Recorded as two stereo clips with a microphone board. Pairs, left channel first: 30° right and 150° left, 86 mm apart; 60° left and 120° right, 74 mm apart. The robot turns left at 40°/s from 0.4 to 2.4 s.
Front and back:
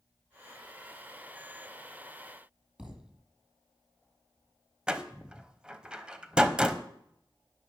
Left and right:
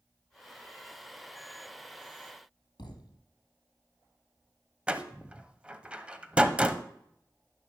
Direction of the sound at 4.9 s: 155° right.